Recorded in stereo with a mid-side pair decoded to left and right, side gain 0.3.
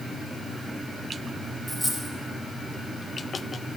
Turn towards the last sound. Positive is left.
turn(degrees=-20)